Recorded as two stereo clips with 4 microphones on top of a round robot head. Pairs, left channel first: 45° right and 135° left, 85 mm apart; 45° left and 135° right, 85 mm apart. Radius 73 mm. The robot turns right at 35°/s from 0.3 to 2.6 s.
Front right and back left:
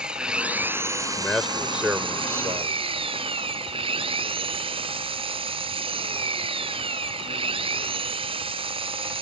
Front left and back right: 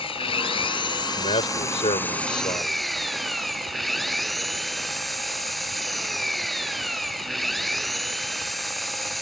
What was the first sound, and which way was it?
An engine running, 55° left.